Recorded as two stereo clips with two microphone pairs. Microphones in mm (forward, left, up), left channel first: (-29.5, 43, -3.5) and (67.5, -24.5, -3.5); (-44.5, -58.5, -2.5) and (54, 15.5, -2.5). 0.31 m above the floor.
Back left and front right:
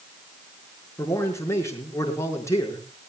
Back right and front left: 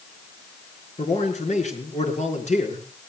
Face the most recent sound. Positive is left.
turn(degrees=-150)